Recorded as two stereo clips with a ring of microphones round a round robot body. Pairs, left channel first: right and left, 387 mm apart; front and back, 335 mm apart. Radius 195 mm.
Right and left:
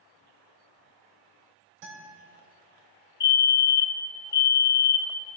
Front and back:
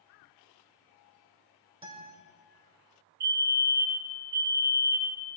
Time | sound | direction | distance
1.8 | a guitar | 105° left | 2.5 m
3.2 | a fire alarm | 135° right | 1.8 m